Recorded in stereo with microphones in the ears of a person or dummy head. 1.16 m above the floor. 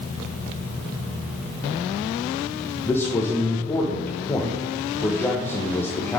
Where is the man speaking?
10° left (ahead or behind), 0.8 m.